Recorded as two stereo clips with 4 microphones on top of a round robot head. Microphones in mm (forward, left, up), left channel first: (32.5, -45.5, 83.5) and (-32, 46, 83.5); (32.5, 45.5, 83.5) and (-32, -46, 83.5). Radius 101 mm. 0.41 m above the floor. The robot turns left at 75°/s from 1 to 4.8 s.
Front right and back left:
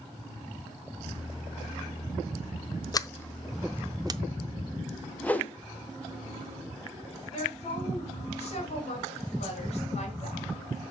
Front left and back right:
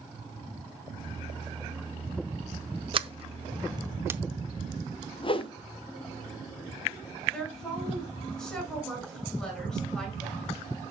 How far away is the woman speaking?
About 5.5 m.